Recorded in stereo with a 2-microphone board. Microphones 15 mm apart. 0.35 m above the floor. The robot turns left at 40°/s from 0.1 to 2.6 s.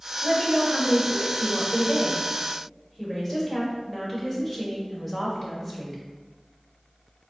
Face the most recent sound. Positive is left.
turn(degrees=135)